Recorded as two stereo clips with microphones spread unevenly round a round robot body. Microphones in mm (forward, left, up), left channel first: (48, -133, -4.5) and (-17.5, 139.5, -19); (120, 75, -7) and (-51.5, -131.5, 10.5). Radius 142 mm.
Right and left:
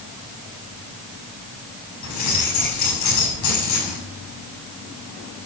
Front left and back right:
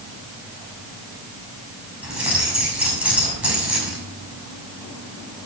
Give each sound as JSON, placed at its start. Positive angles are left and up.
{"t": 2.0, "sound": "keys jangling", "azimuth_deg": -45, "distance_m": 6.5}